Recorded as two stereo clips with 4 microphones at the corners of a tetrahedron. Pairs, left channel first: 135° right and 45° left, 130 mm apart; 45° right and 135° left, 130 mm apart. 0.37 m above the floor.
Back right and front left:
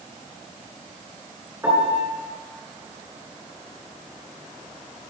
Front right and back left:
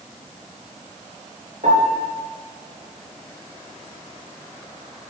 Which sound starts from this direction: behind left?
A piano, at 1.6 s.